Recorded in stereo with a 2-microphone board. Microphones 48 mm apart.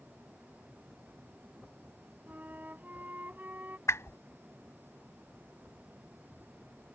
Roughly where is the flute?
Right.